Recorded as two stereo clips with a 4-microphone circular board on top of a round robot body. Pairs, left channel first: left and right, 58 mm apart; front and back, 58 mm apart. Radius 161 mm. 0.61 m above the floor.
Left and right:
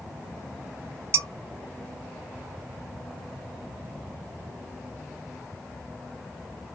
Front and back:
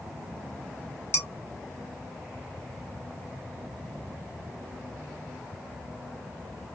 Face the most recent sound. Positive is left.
turn(degrees=-45)